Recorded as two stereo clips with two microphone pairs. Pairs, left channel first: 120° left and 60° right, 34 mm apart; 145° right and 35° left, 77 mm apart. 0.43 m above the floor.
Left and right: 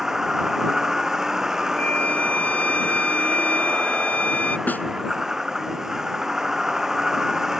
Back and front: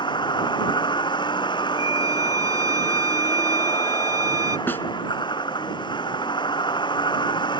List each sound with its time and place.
0.0 s a vehicle: 135° right
1.8 s a violin: 75° left
4.7 s a snare drum: 150° left